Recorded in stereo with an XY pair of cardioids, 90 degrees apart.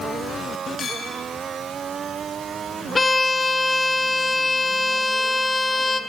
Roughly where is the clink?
Ahead left.